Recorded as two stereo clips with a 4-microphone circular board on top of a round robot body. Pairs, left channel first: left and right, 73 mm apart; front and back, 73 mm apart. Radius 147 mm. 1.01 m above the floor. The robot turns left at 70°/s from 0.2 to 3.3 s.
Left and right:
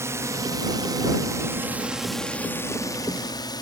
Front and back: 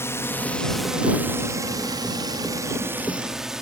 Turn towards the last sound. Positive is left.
turn(degrees=95)